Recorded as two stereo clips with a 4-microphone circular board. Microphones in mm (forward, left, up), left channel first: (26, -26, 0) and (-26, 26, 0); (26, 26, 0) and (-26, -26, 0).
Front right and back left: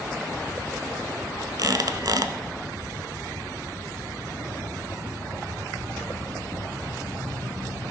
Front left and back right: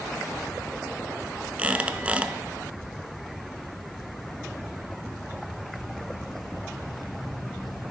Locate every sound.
1.6 s a squeak: 155° left, 0.7 m